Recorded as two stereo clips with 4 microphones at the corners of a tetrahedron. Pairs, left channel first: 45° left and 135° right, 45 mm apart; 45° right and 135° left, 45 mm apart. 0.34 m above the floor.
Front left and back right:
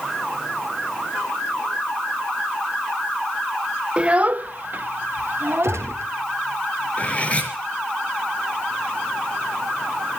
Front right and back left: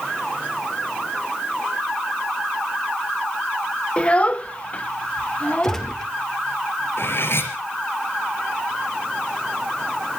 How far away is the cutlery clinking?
About 4 m.